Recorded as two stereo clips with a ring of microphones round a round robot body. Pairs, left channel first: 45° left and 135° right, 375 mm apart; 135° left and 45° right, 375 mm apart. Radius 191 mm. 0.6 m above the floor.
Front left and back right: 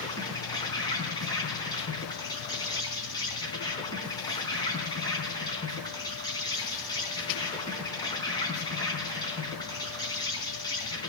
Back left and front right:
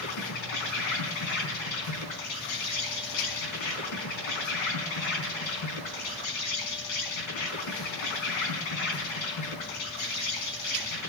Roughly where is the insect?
Behind left.